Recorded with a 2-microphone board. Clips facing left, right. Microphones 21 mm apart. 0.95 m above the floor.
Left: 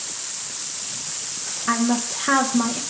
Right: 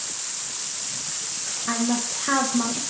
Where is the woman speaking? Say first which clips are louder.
Left 4 dB; 25° left (ahead or behind), 0.5 m.